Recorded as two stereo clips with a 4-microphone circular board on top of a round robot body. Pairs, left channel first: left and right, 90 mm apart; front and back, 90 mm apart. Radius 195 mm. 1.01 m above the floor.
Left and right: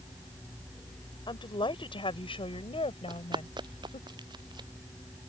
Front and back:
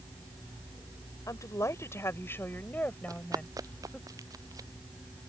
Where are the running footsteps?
130° right.